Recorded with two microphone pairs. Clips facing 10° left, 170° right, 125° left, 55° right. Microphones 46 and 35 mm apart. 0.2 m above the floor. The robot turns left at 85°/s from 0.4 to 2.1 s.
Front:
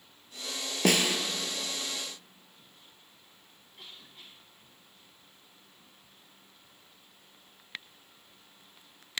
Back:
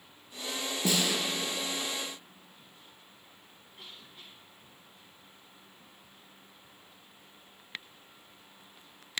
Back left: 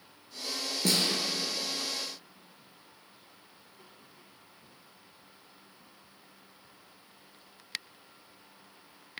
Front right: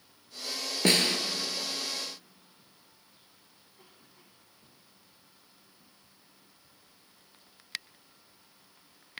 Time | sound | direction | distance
0.8 | a snare drum | 15° right | 1.0 m